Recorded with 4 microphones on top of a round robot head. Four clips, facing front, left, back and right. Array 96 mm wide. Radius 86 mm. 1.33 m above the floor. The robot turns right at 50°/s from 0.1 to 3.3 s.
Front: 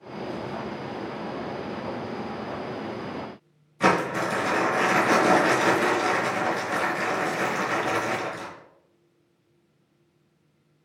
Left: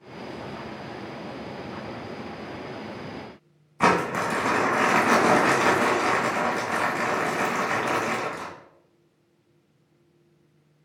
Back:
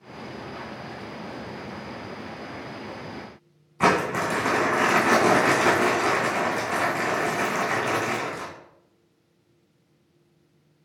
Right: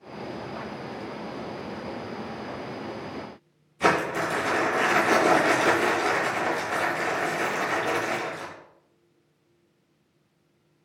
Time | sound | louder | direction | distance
3.8 | crumpling | left 2 dB, back 1 dB | 130° left | 3 m